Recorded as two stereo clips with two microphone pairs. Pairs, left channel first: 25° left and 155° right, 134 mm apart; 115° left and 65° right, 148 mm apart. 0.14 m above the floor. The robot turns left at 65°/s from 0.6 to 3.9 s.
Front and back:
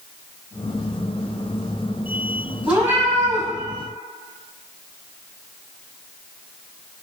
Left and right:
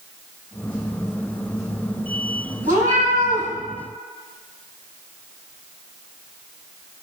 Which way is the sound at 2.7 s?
70° right.